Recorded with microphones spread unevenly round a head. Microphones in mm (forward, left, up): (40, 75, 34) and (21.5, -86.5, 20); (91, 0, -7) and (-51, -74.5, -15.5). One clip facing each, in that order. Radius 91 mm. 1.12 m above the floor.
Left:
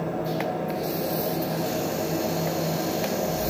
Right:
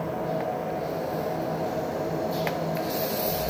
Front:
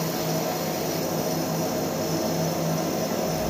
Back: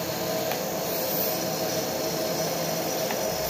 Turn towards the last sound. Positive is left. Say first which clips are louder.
# left 1 dB, front 2 dB
turn(degrees=55)